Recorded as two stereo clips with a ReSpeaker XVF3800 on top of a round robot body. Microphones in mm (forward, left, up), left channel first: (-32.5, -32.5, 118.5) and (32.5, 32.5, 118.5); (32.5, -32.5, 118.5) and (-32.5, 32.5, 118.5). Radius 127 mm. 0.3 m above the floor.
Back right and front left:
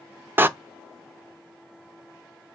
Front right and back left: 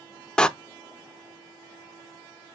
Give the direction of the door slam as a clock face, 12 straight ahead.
11 o'clock.